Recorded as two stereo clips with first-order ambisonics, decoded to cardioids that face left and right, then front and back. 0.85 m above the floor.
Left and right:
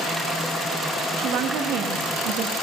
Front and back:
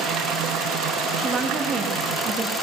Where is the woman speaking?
115° right, 0.7 m.